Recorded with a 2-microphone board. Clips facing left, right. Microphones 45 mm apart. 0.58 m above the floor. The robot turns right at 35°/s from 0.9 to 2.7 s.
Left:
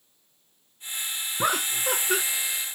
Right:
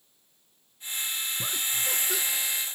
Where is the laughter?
75° left (ahead or behind); by 2.2 s 45° left (ahead or behind).